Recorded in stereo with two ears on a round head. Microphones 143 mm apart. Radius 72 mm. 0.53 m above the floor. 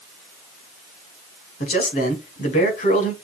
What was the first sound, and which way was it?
A man speaking, 55° left (ahead or behind).